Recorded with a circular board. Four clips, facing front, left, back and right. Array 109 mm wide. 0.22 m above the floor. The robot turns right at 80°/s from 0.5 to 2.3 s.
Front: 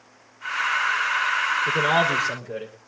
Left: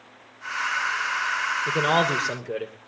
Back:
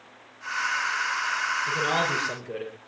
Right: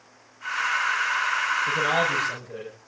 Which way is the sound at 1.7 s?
50° left.